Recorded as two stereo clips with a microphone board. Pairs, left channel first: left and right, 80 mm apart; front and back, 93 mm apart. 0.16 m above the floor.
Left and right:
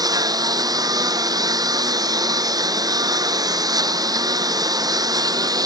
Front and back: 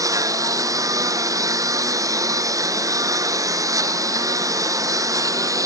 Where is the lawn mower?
130° right.